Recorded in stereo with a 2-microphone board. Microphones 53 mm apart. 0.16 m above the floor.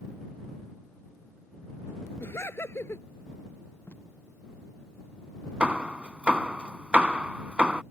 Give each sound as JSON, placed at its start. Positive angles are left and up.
{"t": 2.2, "sound": "laughter", "side_deg": 50}
{"t": 3.9, "sound": "tape being pulled", "side_deg": 50}
{"t": 5.6, "sound": "hammering", "side_deg": -20}